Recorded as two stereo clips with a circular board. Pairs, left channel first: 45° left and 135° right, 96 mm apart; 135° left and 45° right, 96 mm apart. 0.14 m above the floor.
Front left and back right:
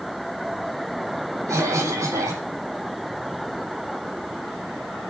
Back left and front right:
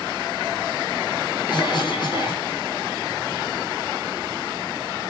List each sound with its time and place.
1.5 s a cough: 170° left, 5.5 m